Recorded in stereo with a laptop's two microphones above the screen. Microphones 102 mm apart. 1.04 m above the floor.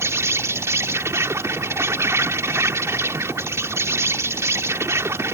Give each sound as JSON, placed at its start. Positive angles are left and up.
{"t": 0.0, "sound": "an insect", "side_deg": -30}